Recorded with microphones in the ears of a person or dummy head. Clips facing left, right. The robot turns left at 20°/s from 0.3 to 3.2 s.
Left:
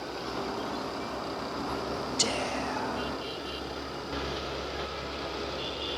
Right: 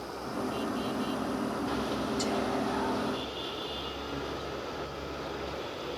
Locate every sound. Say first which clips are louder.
2.2 s whispering: right 2 dB; 40° left (ahead or behind), 0.6 m; by 3.2 s 35° left (ahead or behind), 0.6 m